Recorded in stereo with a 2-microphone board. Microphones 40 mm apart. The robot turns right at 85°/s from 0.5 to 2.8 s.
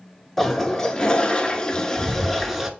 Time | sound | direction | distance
0.4 | a toilet flushing | 5° left (ahead or behind) | 0.6 m